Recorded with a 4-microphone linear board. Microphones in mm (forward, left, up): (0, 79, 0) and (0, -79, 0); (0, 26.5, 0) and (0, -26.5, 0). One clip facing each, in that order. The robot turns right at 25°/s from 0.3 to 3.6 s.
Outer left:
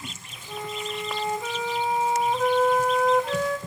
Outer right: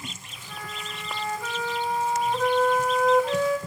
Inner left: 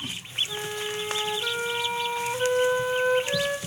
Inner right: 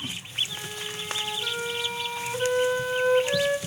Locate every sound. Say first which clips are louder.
0.5 s a flute: outer left 7 dB, inner left 5 dB; 120° left, 1.2 m; by 3.6 s 165° right, 1.2 m